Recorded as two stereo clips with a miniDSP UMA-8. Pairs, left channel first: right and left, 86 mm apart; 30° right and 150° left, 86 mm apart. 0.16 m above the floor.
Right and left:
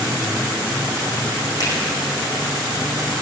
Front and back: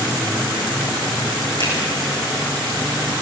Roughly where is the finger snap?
Ahead right.